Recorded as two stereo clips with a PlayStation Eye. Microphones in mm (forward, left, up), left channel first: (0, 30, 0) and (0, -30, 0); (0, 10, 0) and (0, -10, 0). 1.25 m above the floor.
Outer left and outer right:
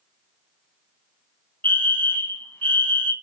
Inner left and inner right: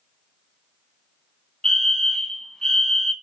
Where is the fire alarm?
35° left (ahead or behind), 1.4 m.